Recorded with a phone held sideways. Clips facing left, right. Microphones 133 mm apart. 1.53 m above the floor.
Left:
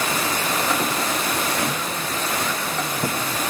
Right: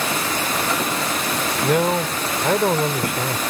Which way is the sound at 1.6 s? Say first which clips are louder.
Right 8 dB; 70° right (ahead or behind).